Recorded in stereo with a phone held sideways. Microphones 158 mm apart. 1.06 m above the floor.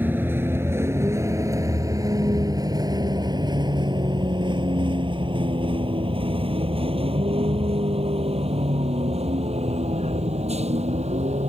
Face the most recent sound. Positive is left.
turn(degrees=-45)  # may be behind; listen again after turning